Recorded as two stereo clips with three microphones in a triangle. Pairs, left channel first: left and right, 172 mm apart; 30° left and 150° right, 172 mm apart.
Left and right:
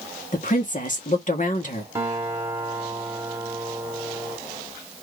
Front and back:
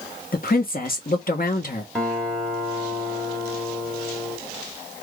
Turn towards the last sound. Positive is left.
turn(degrees=-50)